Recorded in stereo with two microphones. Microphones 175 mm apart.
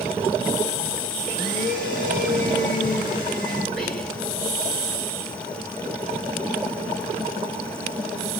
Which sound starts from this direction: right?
A blender, at 1.2 s.